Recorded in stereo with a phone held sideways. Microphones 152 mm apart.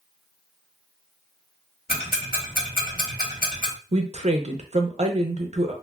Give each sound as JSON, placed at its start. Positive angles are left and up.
{"t": 1.9, "sound": "ticking", "side_deg": 85, "distance_m": 1.1}
{"t": 3.9, "sound": "a woman speaking", "side_deg": -55, "distance_m": 0.6}